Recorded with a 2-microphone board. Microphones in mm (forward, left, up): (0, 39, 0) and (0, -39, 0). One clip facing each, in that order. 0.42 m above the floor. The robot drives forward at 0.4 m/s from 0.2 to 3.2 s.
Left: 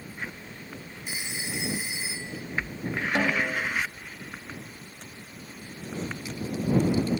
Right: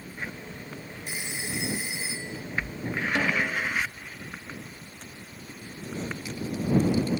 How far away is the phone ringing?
About 0.8 m.